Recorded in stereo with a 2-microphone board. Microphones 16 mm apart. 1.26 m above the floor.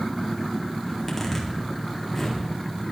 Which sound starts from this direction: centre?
A zipper, at 0.9 s.